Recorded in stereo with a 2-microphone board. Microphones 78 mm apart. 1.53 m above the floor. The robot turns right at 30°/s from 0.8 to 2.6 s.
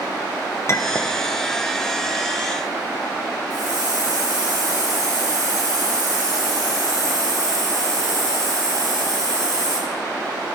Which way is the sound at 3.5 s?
55° right (ahead or behind).